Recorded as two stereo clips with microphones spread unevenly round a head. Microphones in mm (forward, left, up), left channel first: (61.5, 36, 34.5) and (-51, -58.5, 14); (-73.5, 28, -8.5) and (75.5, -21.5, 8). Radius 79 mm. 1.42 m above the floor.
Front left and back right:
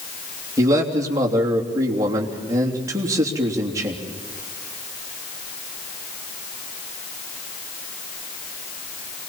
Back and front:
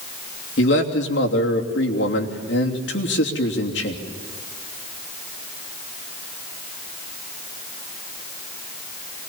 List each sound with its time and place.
0.6 s a man speaking: 150° left, 3 m